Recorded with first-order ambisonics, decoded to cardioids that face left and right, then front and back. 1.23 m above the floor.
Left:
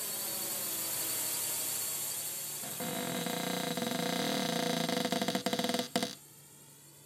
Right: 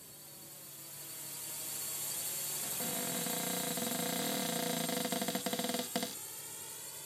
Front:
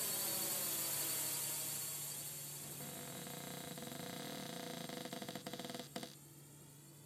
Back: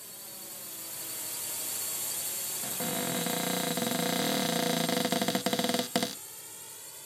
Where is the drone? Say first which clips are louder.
Left 15 dB, front 4 dB; 70° left; by 7.1 s 145° right.